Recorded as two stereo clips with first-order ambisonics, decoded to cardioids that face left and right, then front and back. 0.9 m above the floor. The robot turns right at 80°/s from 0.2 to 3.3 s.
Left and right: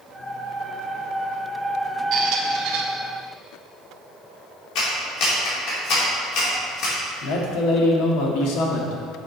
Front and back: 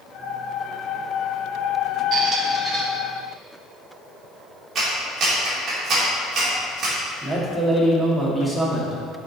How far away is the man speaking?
About 1.3 m.